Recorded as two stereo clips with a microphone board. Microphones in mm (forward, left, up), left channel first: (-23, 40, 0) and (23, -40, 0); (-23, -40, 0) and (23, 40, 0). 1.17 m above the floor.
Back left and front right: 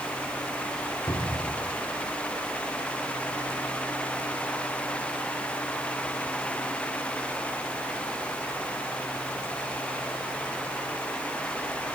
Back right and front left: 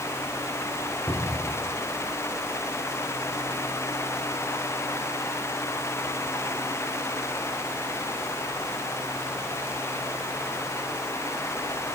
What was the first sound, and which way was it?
A cupboard door, 175° left.